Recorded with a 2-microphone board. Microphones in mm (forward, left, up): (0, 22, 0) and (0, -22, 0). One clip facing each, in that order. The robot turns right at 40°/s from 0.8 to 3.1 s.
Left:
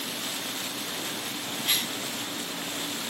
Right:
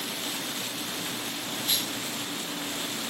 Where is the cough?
50° left (ahead or behind), 1.2 m; by 2.0 s 35° left (ahead or behind), 1.2 m.